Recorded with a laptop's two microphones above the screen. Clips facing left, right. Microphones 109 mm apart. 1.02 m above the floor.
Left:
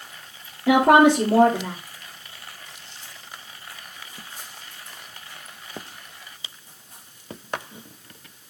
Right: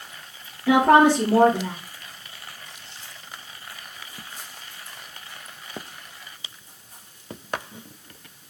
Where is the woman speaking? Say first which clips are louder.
Left 1 dB; 25° left (ahead or behind), 2.5 m.